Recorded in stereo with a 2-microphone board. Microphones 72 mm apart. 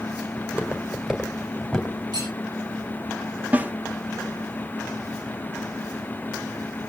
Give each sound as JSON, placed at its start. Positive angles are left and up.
{"t": 0.4, "sound": "footsteps", "side_deg": -15, "distance_m": 3.0}
{"t": 2.1, "sound": "cutlery clinking", "side_deg": -75, "distance_m": 8.0}
{"t": 3.5, "sound": "a snare drum", "side_deg": -20, "distance_m": 0.6}